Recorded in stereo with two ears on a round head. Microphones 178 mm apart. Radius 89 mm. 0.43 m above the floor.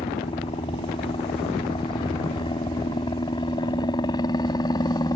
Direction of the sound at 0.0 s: 25° left (ahead or behind).